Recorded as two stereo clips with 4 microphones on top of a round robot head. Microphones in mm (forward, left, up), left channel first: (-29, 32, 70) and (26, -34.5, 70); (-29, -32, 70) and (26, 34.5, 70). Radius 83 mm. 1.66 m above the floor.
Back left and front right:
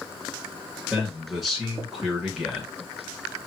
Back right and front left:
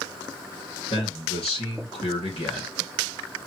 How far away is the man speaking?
About 3.5 m.